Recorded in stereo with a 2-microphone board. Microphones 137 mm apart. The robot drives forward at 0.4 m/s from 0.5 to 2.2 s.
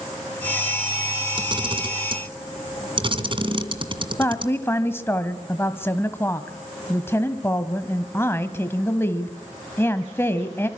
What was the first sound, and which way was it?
A camera shutter, 35° right (ahead or behind).